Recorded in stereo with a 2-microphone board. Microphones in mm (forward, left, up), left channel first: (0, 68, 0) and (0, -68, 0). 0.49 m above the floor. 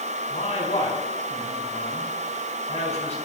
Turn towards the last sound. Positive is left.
turn(degrees=50)  # may be behind; listen again after turning